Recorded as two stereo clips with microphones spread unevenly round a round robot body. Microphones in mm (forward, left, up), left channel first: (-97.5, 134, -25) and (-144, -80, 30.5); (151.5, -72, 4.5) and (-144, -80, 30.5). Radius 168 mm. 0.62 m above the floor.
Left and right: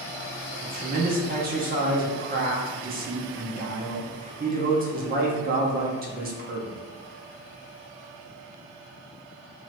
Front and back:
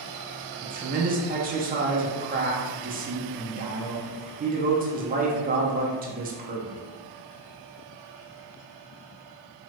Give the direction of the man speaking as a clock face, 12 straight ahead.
5 o'clock.